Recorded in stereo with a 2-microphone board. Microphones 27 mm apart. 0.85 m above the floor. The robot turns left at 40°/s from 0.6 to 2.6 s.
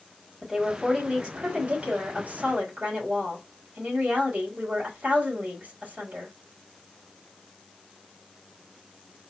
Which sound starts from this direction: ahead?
A woman speaking, at 0.4 s.